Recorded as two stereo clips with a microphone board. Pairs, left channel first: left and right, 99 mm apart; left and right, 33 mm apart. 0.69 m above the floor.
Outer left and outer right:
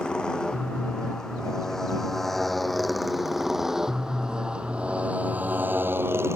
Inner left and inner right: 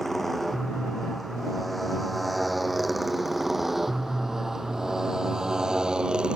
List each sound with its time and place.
0.0 s a motorcycle: 10° left (ahead or behind); by 6.4 s 30° right (ahead or behind)